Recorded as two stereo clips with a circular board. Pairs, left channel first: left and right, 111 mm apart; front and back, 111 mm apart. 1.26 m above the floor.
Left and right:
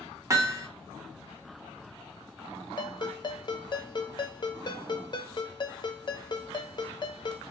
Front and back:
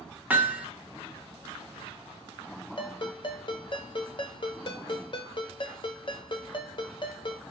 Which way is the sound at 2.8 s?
40° left.